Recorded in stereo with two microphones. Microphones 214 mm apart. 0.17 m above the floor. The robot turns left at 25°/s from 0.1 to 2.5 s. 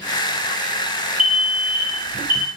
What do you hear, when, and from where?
1.2 s an alarm: 55° right, 3 m; by 2.5 s 85° right, 3 m